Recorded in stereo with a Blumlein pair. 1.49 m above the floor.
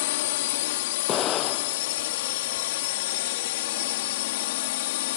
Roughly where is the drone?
Ahead left.